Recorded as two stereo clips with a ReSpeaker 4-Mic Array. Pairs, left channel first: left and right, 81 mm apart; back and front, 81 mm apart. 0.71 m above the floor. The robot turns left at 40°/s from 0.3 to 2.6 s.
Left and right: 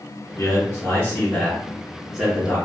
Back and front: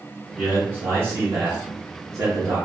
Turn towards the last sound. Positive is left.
turn(degrees=-25)